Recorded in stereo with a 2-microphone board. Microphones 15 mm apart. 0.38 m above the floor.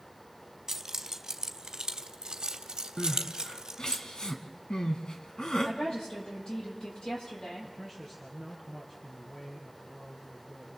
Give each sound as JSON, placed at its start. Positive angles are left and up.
{"t": 0.7, "sound": "keys jangling", "side_deg": -35, "distance_m": 1.7}
{"t": 3.0, "sound": "crying", "side_deg": 60, "distance_m": 1.8}
{"t": 5.7, "sound": "a woman speaking", "side_deg": 70, "distance_m": 10.0}
{"t": 7.6, "sound": "a man speaking", "side_deg": 20, "distance_m": 5.5}